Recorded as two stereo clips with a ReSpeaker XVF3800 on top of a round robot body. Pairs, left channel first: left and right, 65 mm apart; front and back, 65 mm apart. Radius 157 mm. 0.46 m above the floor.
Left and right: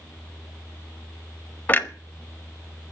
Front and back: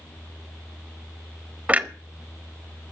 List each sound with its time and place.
1.7 s a clunk: 130° left, 1.6 m